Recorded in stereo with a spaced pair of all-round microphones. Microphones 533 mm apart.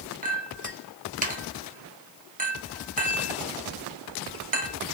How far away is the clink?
About 0.7 m.